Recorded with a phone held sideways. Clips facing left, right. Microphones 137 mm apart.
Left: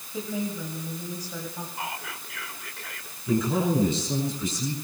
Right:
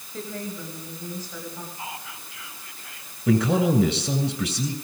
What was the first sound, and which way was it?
A woman speaking, 10° left (ahead or behind).